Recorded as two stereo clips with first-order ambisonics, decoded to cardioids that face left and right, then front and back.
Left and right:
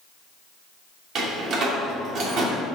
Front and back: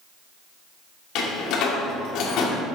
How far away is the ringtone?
I don't hear a ringtone.